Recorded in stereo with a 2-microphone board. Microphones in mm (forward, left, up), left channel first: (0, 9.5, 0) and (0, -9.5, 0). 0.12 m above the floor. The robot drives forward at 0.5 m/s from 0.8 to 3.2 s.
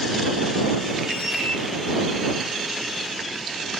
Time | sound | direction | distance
1.1 | a squeak | 50° right (ahead or behind) | 1.4 m